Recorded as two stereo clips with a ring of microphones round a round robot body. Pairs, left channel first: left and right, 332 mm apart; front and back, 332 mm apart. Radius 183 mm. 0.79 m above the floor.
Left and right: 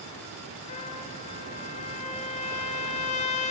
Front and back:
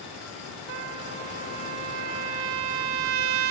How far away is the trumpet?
About 1.3 m.